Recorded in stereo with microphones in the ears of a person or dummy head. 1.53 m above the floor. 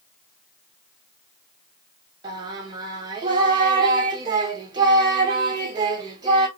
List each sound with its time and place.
2.2 s singing: 25° right (ahead or behind), 1.2 m